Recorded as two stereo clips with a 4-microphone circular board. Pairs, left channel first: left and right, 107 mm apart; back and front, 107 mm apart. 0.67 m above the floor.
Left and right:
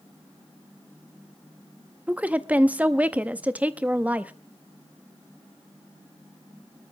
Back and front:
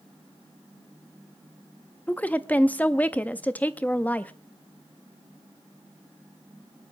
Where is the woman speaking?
135° right, 0.6 m.